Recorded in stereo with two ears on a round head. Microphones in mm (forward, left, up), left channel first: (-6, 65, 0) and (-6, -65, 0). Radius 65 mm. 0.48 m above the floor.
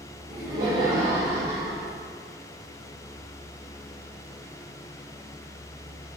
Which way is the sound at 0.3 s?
35° right (ahead or behind).